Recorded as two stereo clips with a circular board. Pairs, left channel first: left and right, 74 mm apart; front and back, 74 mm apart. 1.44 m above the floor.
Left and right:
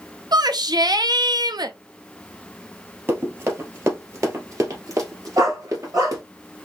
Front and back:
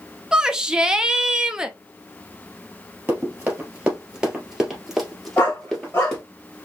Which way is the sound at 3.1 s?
130° right.